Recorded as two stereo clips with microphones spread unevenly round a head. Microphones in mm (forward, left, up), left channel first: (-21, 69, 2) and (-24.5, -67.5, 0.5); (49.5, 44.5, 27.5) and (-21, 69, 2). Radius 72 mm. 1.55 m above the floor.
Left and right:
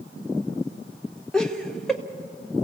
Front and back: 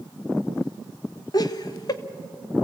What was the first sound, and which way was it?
Laughter, straight ahead.